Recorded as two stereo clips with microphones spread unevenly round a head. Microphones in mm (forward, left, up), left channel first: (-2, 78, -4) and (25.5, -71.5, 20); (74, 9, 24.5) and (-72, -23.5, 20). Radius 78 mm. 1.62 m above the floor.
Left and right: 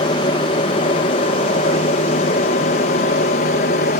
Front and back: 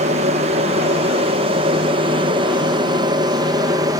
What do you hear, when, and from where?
0.0 s an aircraft: 155° left; by 4.0 s 130° left